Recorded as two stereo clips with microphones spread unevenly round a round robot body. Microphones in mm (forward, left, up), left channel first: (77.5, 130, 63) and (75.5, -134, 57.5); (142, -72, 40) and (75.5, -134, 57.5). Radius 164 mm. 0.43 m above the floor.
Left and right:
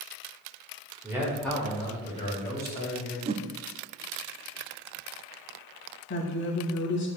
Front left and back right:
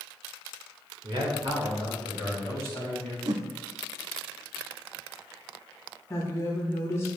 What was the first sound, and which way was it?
A man speaking, 160° right.